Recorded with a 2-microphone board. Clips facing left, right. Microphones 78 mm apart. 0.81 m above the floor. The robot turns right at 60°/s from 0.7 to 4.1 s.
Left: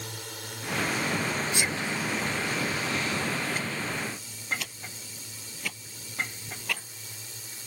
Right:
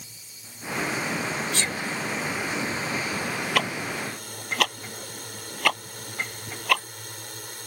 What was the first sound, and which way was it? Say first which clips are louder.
A drone: left 11 dB; 90° left.